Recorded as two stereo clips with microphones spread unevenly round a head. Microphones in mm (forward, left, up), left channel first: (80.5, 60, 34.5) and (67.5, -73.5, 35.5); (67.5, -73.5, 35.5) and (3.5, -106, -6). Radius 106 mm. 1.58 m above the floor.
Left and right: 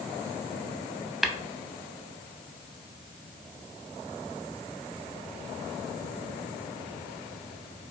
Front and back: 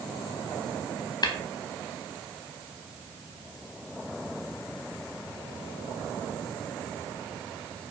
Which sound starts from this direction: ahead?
Tapping, at 1.2 s.